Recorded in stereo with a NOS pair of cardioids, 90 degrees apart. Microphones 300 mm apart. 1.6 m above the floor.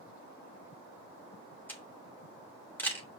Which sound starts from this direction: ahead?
A camera shutter, at 1.7 s.